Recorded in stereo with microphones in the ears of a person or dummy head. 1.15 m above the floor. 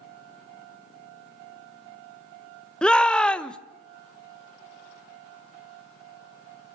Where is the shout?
5° left (ahead or behind), 1.0 m.